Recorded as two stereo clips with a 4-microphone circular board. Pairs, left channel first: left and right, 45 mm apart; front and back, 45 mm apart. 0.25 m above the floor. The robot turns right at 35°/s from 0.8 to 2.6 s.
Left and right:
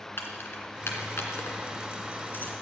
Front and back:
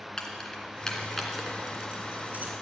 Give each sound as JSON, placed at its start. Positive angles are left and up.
{"t": 0.2, "sound": "keys jangling", "azimuth_deg": 75, "distance_m": 1.8}